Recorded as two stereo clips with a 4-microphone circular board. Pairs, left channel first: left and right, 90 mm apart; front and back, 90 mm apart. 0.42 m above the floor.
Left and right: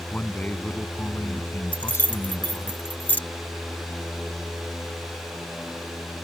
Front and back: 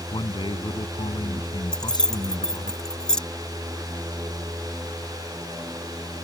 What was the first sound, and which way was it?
A man speaking, 15° left.